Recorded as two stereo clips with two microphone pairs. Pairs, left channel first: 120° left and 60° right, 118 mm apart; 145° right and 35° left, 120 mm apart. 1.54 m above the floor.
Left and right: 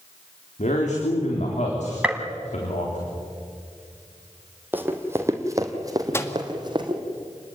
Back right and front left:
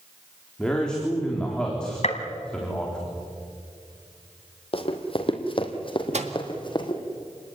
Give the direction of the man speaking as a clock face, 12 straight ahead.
8 o'clock.